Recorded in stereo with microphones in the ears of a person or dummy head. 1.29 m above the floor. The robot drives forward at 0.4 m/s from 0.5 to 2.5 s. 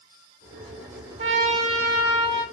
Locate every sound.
1.2 s a trumpet: 35° right (ahead or behind), 1.1 m; by 2.4 s 25° right (ahead or behind), 1.4 m